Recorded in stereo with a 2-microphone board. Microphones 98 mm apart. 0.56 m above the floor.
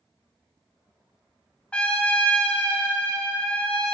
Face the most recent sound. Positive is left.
turn(degrees=10)  # may be behind; listen again after turning